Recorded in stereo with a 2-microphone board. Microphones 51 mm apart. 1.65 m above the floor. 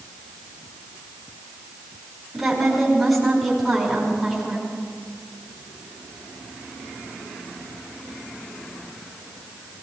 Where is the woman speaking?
Centre (ahead or behind), 5.5 m.